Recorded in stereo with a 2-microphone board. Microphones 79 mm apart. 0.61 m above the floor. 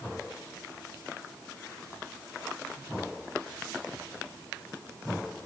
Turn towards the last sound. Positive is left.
No sound to turn to.